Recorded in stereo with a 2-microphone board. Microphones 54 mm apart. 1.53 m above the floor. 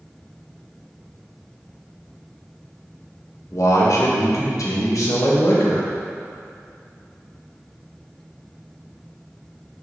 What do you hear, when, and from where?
3.5 s a man speaking: 75° left (ahead or behind), 1.6 m